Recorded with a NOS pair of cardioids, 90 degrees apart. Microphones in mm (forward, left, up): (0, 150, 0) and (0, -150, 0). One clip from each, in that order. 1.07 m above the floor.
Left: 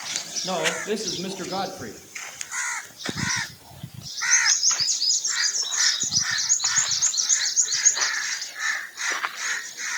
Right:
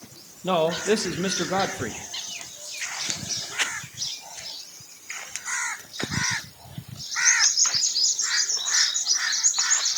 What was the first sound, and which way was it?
A man speaking, 30° right.